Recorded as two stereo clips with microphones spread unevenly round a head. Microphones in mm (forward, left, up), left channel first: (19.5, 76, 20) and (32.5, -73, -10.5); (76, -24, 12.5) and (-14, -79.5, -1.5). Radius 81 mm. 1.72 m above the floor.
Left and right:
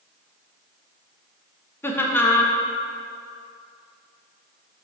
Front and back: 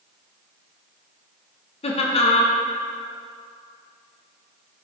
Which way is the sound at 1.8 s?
25° left.